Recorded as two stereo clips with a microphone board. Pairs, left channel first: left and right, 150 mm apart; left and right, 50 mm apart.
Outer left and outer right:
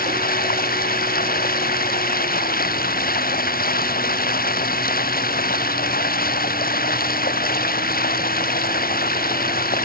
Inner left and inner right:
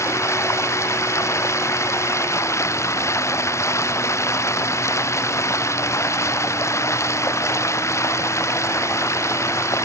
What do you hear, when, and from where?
0.0 s running water: 80° left